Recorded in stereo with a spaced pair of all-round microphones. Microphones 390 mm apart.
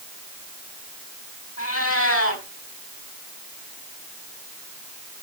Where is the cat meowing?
35° left (ahead or behind), 4 m.